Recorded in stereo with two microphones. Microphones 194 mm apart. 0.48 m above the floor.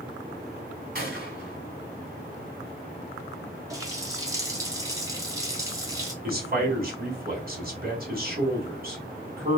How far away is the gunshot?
About 1.9 m.